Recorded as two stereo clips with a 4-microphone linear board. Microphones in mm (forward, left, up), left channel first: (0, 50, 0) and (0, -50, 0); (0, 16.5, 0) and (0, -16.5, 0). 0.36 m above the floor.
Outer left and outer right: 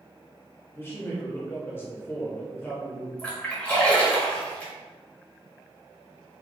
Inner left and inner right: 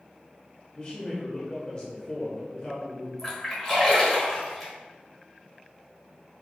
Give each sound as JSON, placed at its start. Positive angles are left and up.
{"t": 0.7, "sound": "a man speaking", "side_deg": 25, "distance_m": 0.8}
{"t": 3.2, "sound": "a splash", "side_deg": 15, "distance_m": 1.2}